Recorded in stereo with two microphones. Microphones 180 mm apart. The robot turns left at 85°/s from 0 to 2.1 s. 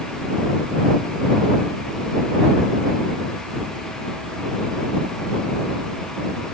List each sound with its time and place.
Only background noise.